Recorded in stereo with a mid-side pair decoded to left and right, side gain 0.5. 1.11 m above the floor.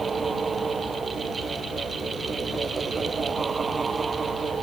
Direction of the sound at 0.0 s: 30° right.